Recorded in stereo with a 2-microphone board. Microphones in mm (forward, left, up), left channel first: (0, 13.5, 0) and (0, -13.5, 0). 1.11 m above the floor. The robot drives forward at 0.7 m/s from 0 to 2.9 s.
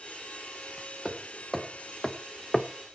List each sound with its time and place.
1.1 s hammering: 15° left (ahead or behind), 1.8 m; by 2.7 s 35° left (ahead or behind), 0.7 m